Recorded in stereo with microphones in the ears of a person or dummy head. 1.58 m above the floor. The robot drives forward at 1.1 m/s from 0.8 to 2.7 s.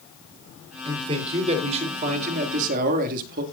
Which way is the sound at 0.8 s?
25° right (ahead or behind).